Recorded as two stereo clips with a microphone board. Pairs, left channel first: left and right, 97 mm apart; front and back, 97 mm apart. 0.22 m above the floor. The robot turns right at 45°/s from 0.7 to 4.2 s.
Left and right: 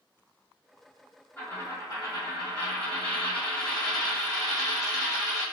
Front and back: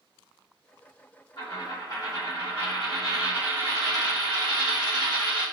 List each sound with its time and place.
1.4 s a dropped coin: 20° left, 1.8 m; by 5.4 s 145° left, 1.8 m